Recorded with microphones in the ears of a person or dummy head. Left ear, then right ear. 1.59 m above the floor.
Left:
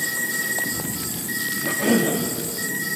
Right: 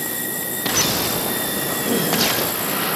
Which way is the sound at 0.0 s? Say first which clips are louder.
Left 3 dB; 10° left (ahead or behind).